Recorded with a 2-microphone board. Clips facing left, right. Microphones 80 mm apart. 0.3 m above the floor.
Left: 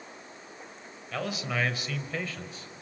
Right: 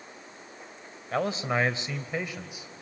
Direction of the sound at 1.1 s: 35° right (ahead or behind).